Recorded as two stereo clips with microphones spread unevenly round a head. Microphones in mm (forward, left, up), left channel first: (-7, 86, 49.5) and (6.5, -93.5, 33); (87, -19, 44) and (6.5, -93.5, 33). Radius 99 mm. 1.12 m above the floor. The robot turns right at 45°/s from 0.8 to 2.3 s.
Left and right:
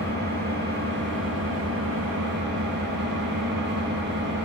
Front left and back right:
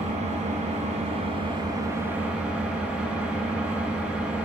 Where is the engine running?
120° right, 6.5 m; by 4.5 s 55° right, 6.5 m.